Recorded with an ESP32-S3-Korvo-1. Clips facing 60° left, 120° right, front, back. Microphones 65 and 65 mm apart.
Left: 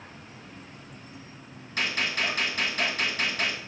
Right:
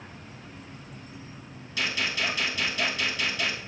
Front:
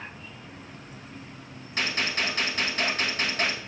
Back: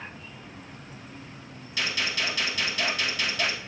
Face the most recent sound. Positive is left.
turn(degrees=40)